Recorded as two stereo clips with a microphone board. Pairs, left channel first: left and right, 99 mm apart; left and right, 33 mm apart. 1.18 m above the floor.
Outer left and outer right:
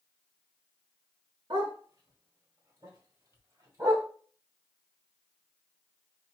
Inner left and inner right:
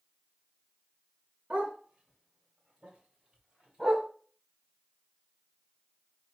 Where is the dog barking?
50° right (ahead or behind), 1.5 m; by 4.1 s 30° right (ahead or behind), 3 m.